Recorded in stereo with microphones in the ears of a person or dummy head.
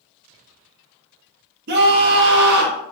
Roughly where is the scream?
Right.